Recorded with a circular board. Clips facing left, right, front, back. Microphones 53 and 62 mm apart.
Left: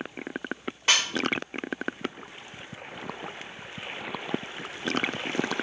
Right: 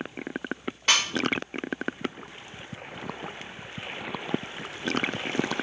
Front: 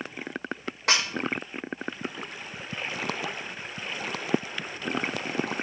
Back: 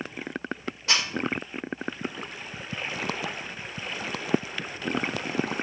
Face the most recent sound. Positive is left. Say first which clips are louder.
# even, front 2 dB
turn(degrees=5)